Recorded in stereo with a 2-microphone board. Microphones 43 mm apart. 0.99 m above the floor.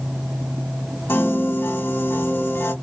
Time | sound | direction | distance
1.1 | a piano | 60° left (ahead or behind) | 1.3 m